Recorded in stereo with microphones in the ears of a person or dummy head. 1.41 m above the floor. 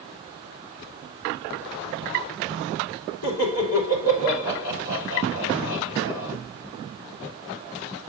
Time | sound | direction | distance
3.2 | laughter | 70° left (ahead or behind) | 4 m